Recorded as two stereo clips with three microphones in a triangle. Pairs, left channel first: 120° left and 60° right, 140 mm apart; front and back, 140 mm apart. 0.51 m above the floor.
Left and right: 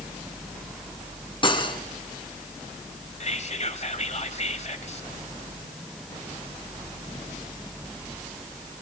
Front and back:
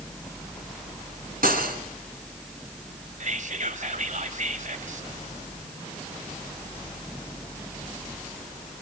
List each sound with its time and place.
1.4 s cutlery clinking: 175° left, 3 m
3.2 s whispering: 155° left, 2.5 m